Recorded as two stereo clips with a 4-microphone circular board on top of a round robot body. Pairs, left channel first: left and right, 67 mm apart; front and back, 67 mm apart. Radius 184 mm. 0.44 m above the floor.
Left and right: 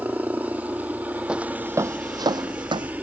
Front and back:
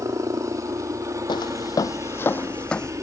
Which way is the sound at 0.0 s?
155° right.